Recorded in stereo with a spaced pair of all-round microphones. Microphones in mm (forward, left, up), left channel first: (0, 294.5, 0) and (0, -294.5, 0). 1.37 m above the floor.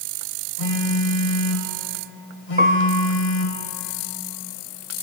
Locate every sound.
0.6 s a phone buzzing: 70° left (ahead or behind), 1.6 m
2.6 s a piano: 15° right (ahead or behind), 0.7 m